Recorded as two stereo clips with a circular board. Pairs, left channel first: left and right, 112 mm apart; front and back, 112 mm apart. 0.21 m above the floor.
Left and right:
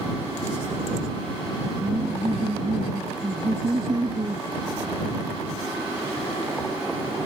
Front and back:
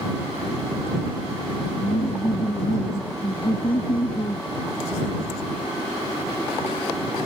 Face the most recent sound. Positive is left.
turn(degrees=-45)